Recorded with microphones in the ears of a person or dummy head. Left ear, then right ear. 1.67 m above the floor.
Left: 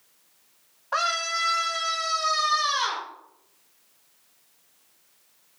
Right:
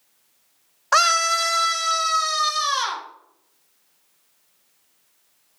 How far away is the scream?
About 0.6 m.